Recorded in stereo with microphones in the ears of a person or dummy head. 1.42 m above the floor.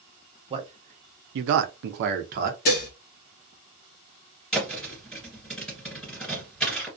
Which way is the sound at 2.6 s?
50° left (ahead or behind).